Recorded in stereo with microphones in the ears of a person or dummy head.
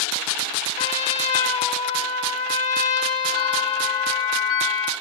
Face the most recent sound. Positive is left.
turn(degrees=75)  # may be behind; listen again after turning